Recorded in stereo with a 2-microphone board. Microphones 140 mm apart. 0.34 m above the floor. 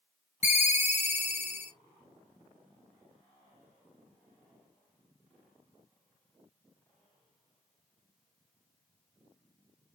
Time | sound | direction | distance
0.4 | a ringtone | 50° left (ahead or behind) | 0.6 m